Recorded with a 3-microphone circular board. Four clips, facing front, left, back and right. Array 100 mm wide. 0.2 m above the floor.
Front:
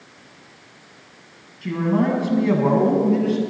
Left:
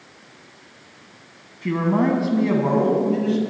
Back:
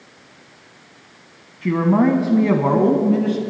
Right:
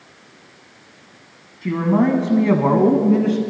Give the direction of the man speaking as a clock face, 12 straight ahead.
6 o'clock.